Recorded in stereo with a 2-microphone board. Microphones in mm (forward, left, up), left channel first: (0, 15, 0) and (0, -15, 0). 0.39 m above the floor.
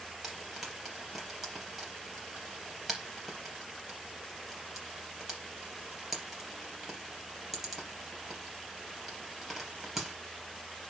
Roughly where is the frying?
Centre.